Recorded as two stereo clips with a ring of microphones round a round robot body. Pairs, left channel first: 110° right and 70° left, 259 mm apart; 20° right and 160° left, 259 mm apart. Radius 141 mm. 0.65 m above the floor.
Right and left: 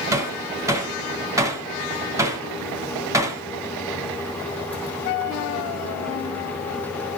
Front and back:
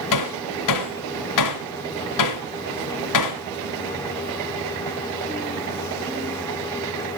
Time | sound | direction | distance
0.1 | hammering | 10° right | 2.0 m